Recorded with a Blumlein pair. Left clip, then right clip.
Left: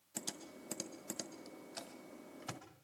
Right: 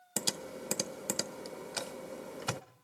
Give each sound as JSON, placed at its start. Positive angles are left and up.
{"t": 0.2, "sound": "typing on a keyboard", "azimuth_deg": -45, "distance_m": 0.8}